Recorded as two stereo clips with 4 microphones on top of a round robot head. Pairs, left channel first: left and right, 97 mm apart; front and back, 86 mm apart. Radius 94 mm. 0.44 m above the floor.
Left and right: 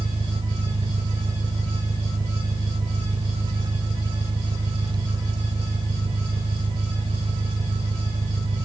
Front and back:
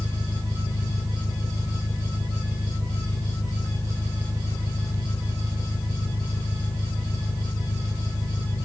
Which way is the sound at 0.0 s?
55° right.